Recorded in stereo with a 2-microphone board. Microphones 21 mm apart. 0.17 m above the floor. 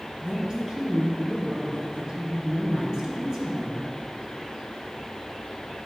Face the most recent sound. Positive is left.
turn(degrees=-40)  # may be behind; listen again after turning